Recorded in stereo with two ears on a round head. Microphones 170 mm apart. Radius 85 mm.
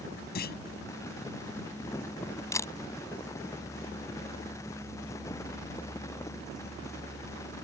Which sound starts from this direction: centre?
A camera shutter, at 2.5 s.